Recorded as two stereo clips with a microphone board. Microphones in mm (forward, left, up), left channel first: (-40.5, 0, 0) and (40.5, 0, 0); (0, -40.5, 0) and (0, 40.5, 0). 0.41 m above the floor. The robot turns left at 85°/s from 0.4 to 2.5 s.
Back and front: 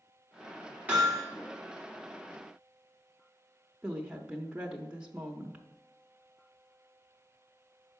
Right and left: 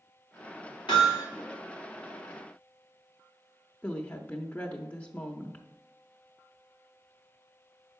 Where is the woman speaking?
50° right, 0.8 m.